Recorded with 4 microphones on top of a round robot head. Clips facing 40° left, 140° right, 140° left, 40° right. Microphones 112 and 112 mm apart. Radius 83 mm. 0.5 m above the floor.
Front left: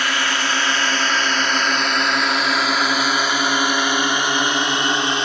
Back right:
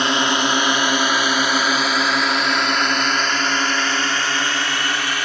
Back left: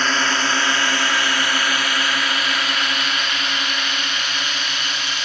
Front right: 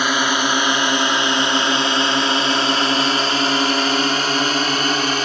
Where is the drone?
105° right; by 5.2 s 20° right.